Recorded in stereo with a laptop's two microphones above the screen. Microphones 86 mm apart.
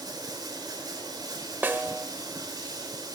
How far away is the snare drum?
About 1.3 m.